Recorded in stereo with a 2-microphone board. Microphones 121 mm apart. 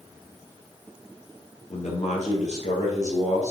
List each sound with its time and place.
1.7 s a man speaking: 70° left (ahead or behind), 3 m; by 3.5 s 75° left (ahead or behind), 4 m